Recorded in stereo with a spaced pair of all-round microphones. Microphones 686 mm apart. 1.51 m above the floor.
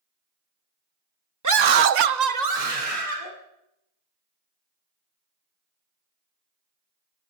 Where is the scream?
25° right (ahead or behind), 0.8 m; by 3.3 s 45° right (ahead or behind), 2.5 m.